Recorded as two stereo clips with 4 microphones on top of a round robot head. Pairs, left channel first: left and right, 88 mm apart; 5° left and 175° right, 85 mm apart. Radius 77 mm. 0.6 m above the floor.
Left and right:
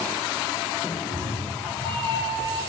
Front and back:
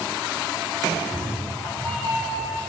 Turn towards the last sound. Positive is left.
turn(degrees=-70)